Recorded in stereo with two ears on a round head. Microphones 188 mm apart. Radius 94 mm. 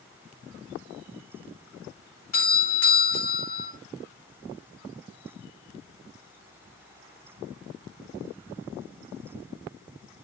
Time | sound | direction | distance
2.3 | a doorbell | 45° left (ahead or behind) | 4.5 m